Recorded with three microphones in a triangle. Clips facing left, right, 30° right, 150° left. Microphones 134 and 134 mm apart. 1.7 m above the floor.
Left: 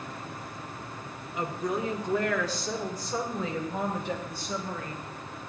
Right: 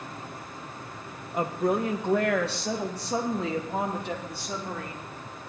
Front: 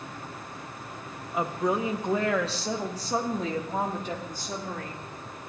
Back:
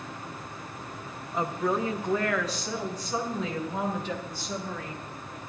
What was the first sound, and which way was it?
A woman speaking, 115° right.